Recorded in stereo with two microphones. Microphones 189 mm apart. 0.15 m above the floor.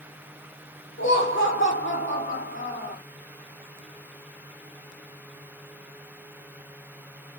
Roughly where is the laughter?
Left.